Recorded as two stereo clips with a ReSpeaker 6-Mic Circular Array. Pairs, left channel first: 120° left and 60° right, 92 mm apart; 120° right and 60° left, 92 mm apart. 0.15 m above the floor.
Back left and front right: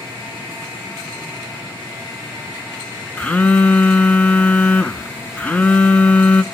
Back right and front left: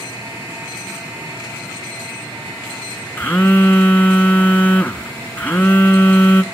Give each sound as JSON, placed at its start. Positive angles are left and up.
{"t": 3.2, "sound": "a phone buzzing", "azimuth_deg": -175, "distance_m": 0.8}